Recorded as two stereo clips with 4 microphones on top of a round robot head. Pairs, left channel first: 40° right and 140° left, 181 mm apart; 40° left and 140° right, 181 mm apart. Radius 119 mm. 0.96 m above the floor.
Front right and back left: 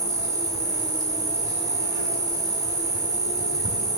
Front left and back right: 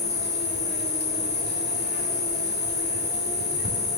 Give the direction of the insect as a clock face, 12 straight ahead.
10 o'clock.